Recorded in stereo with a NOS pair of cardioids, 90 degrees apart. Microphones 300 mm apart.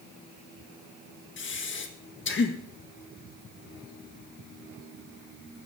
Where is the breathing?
40° left, 1.6 m.